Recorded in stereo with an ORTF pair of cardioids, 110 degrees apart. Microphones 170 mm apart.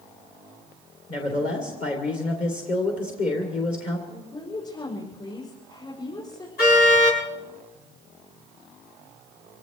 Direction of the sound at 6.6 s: 65° left.